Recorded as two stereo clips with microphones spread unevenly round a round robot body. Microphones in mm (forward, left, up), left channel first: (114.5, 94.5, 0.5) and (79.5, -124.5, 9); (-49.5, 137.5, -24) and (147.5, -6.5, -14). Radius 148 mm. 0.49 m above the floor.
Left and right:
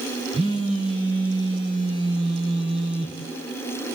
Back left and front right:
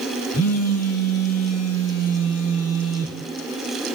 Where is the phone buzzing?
170° right, 2 m.